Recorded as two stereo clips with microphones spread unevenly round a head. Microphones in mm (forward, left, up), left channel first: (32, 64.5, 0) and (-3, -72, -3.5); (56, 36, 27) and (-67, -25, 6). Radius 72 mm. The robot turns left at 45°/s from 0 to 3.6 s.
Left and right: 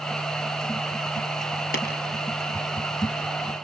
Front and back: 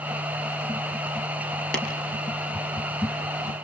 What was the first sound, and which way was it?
Tapping, 110° left.